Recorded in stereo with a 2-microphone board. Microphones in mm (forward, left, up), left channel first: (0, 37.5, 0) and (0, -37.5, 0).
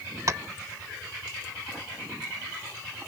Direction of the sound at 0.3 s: 45° right (ahead or behind).